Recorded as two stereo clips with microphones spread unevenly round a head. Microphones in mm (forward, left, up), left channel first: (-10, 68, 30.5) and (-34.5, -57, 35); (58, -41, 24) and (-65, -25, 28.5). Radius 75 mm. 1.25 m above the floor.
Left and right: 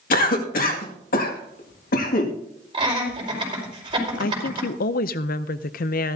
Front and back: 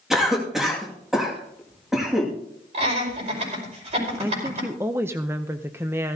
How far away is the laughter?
About 5 m.